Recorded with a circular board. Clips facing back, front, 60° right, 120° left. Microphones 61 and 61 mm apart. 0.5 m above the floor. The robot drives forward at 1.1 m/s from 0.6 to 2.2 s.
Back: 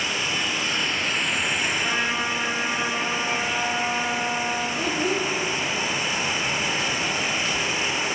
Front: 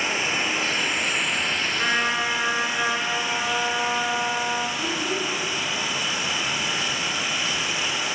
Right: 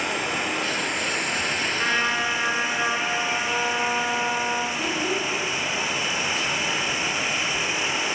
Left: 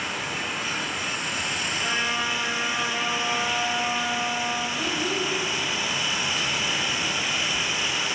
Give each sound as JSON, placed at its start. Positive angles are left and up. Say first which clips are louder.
{"t": 0.0, "sound": "an insect", "louder": "front 2 dB, right 4 dB", "azimuth_deg": -60, "distance_m": 1.7}
{"t": 1.8, "sound": "a trumpet", "louder": "front 2 dB, right 3 dB", "azimuth_deg": -35, "distance_m": 3.0}
{"t": 4.8, "sound": "a child speaking", "louder": "back 2 dB, right 1 dB", "azimuth_deg": -140, "distance_m": 1.3}